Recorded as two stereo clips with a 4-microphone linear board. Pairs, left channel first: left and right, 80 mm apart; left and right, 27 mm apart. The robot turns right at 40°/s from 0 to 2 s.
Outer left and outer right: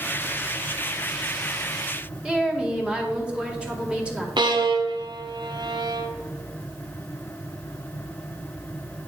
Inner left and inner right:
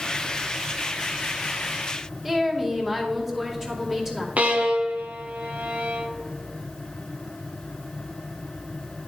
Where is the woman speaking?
15° right (ahead or behind), 1.9 m.